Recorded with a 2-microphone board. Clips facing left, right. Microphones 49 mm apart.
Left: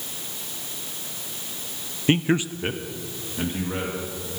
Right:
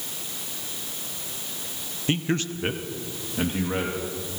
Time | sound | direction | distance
2.1 | a man speaking | 30° left (ahead or behind) | 0.6 m